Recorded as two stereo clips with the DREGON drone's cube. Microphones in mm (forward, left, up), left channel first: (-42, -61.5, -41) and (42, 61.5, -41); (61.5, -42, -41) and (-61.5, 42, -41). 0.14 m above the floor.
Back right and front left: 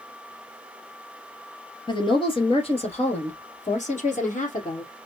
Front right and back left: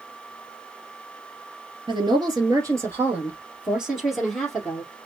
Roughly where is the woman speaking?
Behind.